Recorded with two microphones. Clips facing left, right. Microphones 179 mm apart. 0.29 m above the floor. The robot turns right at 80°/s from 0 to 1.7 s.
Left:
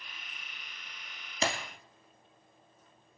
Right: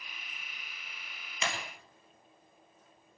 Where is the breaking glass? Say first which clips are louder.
Left 5 dB; 35° left (ahead or behind), 3 m; by 1.5 s 45° left (ahead or behind), 3 m.